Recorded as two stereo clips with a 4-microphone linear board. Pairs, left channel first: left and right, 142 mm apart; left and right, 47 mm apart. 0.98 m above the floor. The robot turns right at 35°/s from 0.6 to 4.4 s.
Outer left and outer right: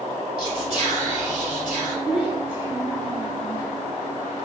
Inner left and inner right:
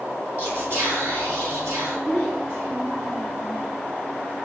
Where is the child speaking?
Centre (ahead or behind), 1.3 m; by 3.6 s 55° right (ahead or behind), 1.3 m.